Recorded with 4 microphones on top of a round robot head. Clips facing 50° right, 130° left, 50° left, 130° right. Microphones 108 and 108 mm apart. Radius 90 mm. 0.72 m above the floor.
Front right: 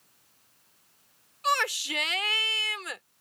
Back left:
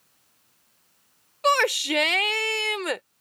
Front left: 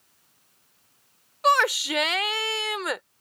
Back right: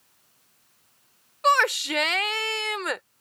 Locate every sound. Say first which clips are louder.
1.4 s a shout: back left 6 dB, even; 135° left